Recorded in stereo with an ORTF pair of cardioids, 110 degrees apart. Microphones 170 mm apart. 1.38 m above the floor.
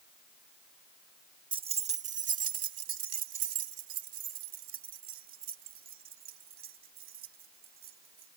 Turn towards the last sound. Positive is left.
turn(degrees=-65)